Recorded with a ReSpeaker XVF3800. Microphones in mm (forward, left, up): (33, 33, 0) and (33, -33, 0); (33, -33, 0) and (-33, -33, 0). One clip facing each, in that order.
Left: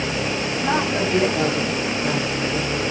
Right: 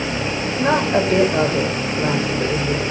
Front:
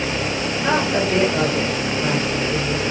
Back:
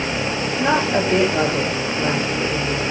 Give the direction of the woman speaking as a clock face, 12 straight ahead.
4 o'clock.